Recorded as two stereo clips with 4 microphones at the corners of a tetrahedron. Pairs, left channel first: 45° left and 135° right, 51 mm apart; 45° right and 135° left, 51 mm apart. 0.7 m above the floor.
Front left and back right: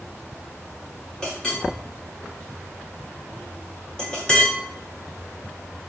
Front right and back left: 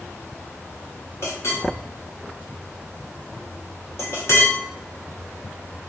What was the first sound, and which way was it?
A clink, 25° right.